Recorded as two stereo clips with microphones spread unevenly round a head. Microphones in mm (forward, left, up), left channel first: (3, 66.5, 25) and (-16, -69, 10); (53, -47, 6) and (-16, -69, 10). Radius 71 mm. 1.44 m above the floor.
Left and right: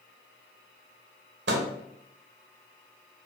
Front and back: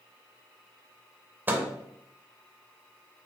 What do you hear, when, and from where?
1.5 s a microwave: 100° right, 1.0 m